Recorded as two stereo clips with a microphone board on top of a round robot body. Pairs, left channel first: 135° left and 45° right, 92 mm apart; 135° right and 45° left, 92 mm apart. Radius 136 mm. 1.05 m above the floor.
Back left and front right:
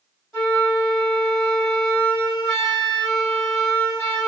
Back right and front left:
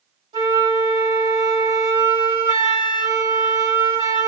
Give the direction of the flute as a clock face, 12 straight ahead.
10 o'clock.